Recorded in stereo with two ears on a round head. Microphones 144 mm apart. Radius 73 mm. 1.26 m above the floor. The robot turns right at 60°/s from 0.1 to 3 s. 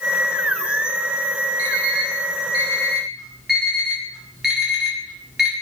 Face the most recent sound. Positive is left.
turn(degrees=-5)  # may be behind; listen again after turning